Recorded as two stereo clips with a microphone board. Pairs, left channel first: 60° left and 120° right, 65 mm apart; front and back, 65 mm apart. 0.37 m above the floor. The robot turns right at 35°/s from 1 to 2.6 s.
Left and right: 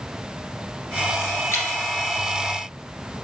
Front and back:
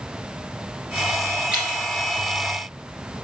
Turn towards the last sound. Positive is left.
turn(degrees=145)